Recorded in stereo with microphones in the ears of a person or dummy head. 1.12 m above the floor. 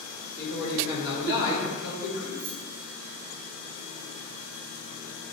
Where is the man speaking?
75° left (ahead or behind), 1.7 m.